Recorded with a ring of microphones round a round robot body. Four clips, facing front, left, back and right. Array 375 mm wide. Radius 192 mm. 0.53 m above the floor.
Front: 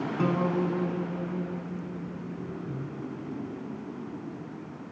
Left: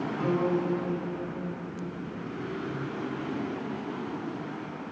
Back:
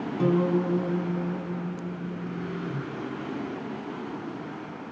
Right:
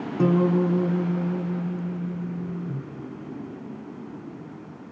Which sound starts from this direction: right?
A guitar, at 0.2 s.